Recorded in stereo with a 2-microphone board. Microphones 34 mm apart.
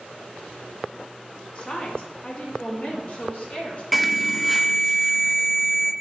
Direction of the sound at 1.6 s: 30° left (ahead or behind).